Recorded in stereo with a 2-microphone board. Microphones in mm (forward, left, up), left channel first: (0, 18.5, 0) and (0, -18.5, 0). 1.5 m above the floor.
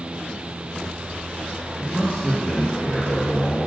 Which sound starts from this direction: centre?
A man speaking, at 1.8 s.